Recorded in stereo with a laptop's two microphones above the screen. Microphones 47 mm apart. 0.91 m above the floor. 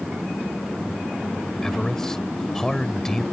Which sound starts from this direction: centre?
A man speaking, at 1.6 s.